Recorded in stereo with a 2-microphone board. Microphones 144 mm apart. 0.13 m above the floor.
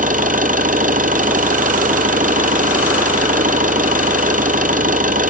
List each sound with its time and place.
0.0 s an engine running: 65° right (ahead or behind), 1.4 m